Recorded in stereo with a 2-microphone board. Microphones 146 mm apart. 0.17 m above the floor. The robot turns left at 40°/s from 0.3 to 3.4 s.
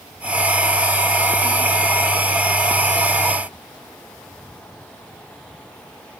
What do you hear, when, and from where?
Only background noise.